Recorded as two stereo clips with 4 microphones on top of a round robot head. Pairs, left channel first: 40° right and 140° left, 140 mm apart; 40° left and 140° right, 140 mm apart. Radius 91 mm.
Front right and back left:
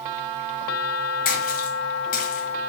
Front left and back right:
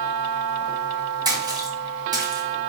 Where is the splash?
75° right, 1.7 m.